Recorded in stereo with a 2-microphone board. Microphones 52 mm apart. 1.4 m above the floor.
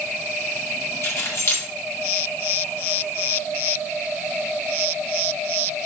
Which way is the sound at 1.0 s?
55° left (ahead or behind).